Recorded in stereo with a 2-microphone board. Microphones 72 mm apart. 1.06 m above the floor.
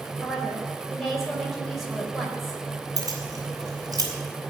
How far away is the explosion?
I don't hear an explosion.